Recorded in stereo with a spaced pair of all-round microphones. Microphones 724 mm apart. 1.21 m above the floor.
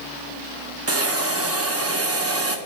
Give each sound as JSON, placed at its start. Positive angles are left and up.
{"t": 0.9, "sound": "a hiss", "side_deg": -20, "distance_m": 0.6}